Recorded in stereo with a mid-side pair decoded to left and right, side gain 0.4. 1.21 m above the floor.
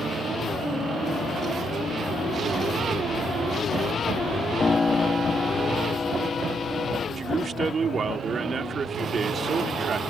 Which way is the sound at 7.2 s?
50° right.